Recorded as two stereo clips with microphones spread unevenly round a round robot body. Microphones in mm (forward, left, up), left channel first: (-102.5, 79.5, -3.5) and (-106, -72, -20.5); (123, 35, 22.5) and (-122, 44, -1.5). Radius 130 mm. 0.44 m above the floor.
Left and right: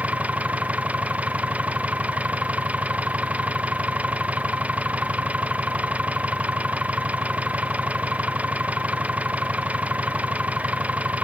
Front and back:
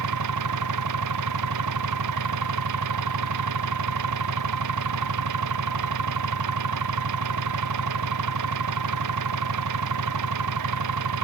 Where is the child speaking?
No child speaking in this recording.